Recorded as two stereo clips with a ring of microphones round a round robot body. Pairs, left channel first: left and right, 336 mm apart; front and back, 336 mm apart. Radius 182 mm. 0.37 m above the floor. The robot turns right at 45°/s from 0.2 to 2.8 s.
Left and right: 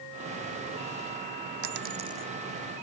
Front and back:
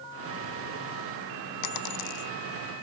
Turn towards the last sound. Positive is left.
turn(degrees=20)